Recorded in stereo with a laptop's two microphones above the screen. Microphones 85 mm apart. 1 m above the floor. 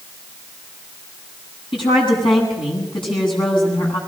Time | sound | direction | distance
1.7 | a woman speaking | 85° left | 9 m